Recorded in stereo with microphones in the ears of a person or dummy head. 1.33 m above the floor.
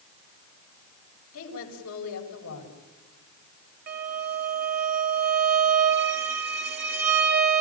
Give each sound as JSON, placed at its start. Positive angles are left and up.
{"t": 1.3, "sound": "a woman speaking", "side_deg": 90, "distance_m": 7.5}
{"t": 3.9, "sound": "a violin", "side_deg": -50, "distance_m": 2.0}